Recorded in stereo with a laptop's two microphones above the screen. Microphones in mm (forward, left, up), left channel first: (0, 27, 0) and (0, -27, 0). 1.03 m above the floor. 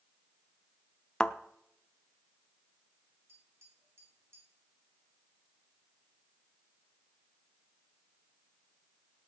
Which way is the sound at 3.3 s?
55° right (ahead or behind).